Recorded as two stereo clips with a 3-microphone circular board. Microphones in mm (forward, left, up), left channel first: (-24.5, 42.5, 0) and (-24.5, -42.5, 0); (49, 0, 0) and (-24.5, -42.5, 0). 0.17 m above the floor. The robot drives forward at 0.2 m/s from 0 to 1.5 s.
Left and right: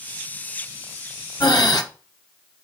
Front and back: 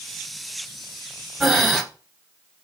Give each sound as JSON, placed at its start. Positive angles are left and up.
{"t": 1.4, "sound": "breathing", "azimuth_deg": 120, "distance_m": 1.3}